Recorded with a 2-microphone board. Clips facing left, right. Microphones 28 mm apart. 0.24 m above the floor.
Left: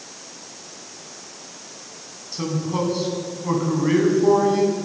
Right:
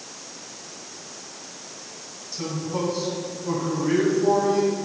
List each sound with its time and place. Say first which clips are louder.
2.3 s a man speaking: left 4 dB; 35° left (ahead or behind), 1.9 m